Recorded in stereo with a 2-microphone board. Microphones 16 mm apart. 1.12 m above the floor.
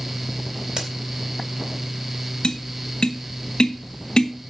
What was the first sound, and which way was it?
A crack, 55° right (ahead or behind).